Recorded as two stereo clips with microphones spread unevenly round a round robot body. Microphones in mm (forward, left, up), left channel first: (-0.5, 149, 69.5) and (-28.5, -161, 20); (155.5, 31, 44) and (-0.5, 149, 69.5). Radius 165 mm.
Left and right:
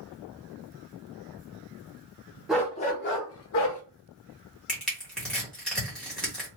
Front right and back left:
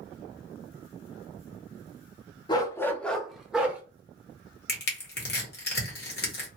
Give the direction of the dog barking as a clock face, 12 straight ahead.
12 o'clock.